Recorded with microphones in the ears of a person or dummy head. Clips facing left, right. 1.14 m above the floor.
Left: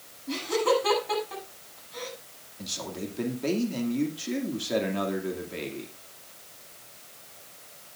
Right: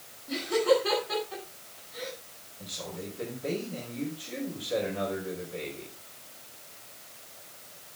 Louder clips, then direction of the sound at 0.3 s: Right 1 dB; 75° left (ahead or behind).